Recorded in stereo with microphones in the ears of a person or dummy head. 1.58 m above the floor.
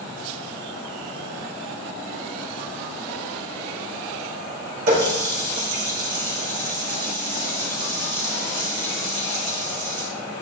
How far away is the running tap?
About 2.5 m.